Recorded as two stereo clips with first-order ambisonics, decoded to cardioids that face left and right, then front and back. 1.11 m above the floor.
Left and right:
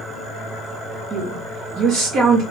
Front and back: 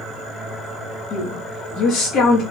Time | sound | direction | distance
1.1 | a woman speaking | 40° right | 0.7 m